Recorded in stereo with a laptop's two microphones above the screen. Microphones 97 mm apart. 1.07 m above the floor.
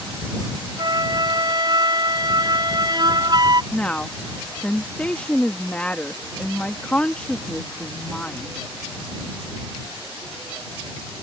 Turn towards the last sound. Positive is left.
turn(degrees=15)  # may be behind; listen again after turning